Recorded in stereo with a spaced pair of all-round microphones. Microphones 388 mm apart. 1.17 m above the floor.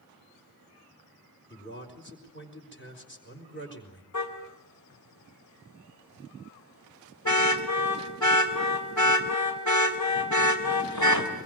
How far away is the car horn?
About 3 m.